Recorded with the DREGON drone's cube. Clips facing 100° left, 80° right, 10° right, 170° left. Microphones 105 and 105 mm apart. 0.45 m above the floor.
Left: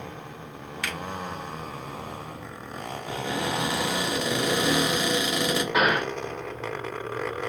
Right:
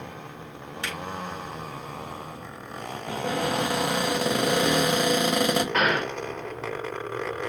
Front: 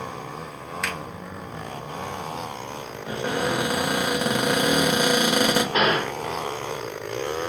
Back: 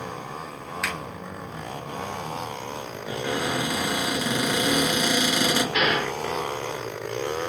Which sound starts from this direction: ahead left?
A gunshot, at 5.7 s.